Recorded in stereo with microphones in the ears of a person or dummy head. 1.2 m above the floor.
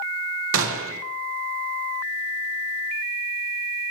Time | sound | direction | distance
0.5 | a gunshot | 65° right (ahead or behind) | 1.0 m